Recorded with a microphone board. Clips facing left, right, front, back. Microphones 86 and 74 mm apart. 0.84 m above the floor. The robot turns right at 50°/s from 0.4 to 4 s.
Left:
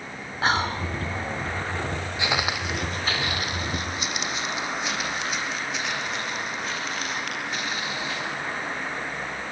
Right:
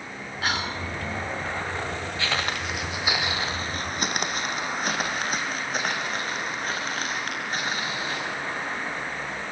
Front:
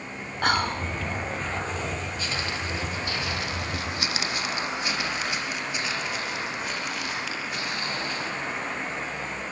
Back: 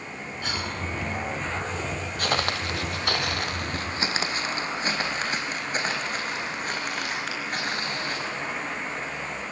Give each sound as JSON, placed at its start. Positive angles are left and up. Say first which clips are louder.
{"t": 0.4, "sound": "whispering", "louder": "left 5 dB, front 8 dB", "azimuth_deg": 30, "distance_m": 2.5}
{"t": 2.2, "sound": "footsteps", "louder": "left 2 dB, back 4 dB", "azimuth_deg": 160, "distance_m": 1.7}